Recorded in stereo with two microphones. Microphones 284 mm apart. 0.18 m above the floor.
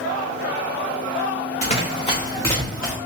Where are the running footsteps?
25° left (ahead or behind), 1.5 m; by 3.0 s centre (ahead or behind), 1.3 m.